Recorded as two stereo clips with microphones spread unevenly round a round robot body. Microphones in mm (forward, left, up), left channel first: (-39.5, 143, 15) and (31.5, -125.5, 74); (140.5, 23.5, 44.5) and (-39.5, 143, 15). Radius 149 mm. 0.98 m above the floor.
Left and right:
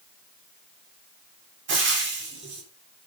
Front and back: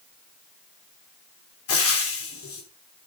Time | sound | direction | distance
1.7 | frying | 20° right | 3.5 m